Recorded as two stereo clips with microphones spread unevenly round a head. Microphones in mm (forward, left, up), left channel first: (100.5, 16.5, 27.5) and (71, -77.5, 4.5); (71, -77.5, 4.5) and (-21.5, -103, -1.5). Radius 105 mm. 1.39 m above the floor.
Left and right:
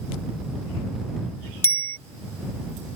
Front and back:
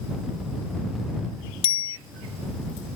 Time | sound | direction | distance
1.6 | a bicycle bell | 10° left | ?